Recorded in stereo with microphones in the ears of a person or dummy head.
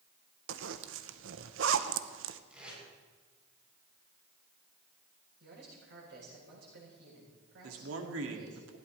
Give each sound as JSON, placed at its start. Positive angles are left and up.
{"t": 0.5, "sound": "a zipper", "side_deg": -75, "distance_m": 0.8}
{"t": 2.5, "sound": "tape being pulled", "side_deg": -10, "distance_m": 7.5}
{"t": 5.4, "sound": "a man speaking", "side_deg": -65, "distance_m": 8.5}
{"t": 7.6, "sound": "a man speaking", "side_deg": -85, "distance_m": 2.0}